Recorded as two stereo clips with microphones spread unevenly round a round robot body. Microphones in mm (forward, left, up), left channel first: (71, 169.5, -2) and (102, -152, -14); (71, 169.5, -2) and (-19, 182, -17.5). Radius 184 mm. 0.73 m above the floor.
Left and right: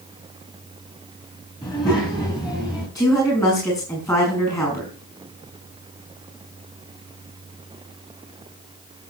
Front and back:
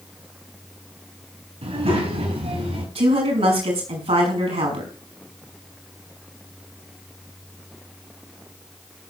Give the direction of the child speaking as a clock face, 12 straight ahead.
6 o'clock.